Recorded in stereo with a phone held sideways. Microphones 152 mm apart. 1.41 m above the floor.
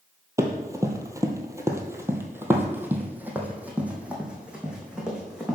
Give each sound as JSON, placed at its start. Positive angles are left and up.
{"t": 0.4, "sound": "running footsteps", "side_deg": -20, "distance_m": 1.6}